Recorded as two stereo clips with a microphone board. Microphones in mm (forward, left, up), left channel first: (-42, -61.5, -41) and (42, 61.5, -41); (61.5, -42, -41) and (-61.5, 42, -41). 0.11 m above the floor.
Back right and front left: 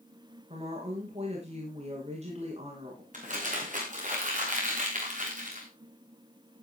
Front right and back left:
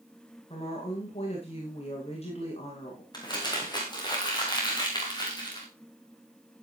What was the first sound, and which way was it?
A woman speaking, 10° left.